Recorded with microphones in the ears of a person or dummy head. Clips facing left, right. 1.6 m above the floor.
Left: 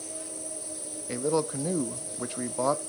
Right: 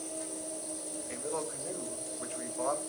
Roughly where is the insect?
Left.